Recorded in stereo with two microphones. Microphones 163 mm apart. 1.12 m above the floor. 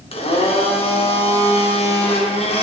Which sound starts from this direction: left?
A blender, at 0.1 s.